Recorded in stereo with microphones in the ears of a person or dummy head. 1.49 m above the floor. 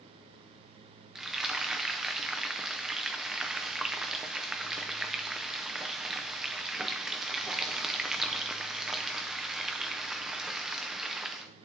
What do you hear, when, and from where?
1.1 s frying: 5° right (ahead or behind), 0.8 m